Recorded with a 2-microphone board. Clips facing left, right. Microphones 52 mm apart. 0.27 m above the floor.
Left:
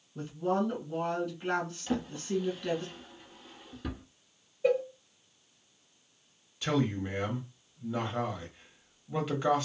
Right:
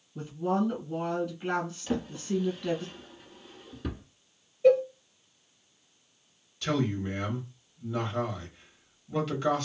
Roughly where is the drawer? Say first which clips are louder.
Right 1 dB; centre.